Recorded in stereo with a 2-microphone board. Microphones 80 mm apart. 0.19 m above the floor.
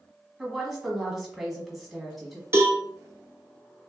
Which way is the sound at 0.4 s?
5° right (ahead or behind).